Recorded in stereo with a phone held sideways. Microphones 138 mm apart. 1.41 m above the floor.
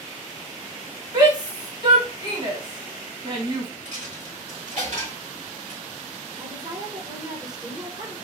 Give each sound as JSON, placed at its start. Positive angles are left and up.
{"t": 1.1, "sound": "a shout", "side_deg": -35, "distance_m": 2.5}
{"t": 3.9, "sound": "a dropped coin", "side_deg": -65, "distance_m": 3.0}
{"t": 6.4, "sound": "a woman speaking", "side_deg": -30, "distance_m": 1.5}